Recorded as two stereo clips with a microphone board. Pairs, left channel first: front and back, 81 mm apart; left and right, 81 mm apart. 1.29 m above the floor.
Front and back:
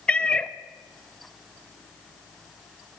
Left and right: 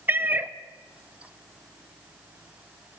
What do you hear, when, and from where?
0.1 s a cat meowing: 65° right, 0.5 m